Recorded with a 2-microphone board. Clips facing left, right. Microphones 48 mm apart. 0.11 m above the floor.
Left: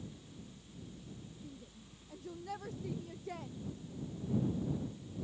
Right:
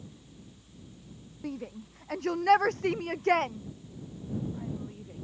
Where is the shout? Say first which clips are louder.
Right 14 dB; 75° right (ahead or behind); by 5.2 s 70° right (ahead or behind).